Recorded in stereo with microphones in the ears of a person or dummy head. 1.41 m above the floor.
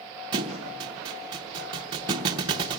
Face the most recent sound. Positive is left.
turn(degrees=-25)  # may be behind; listen again after turning